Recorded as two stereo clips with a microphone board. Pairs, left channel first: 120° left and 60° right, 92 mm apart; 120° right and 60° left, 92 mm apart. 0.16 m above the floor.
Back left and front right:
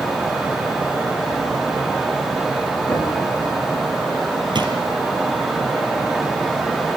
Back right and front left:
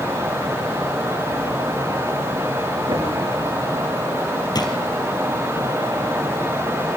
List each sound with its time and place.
2.9 s knocking: 40° left, 8.5 m
4.5 s a drawer: 85° right, 2 m